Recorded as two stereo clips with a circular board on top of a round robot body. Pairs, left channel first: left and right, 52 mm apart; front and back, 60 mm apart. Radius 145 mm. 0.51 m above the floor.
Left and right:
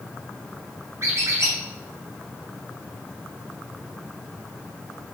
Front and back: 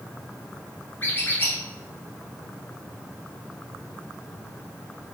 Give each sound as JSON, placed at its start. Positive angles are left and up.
{"t": 1.0, "sound": "a squeak", "azimuth_deg": -60, "distance_m": 2.5}